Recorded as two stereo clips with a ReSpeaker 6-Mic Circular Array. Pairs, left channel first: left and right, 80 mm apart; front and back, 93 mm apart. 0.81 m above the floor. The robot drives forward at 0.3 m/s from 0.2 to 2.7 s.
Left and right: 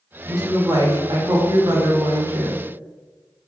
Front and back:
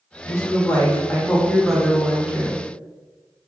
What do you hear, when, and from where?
0.2 s a woman speaking: 55° right, 0.8 m; by 2.6 s 110° right, 0.8 m